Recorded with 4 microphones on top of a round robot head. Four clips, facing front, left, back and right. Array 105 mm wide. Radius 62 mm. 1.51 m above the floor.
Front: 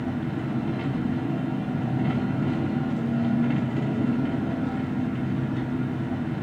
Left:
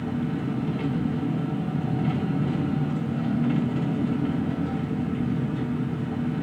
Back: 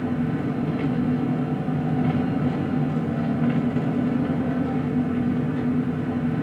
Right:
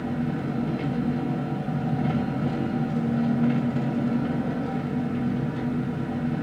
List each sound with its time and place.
0.0 s an engine running: 155° right, 3.5 m